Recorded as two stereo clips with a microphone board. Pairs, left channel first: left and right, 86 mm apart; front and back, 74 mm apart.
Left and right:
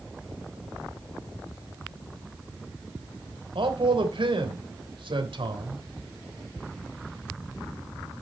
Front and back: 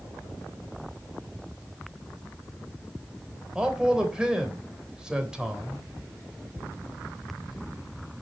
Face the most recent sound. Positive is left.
turn(degrees=-100)